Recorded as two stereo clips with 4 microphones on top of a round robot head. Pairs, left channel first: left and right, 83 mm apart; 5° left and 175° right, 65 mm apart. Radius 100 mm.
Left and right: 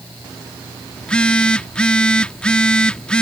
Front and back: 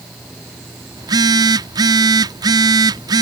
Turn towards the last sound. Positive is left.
turn(degrees=170)